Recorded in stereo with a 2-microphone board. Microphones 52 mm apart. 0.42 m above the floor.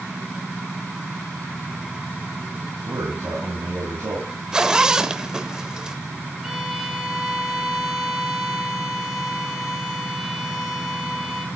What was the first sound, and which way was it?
A man speaking, 70° right (ahead or behind).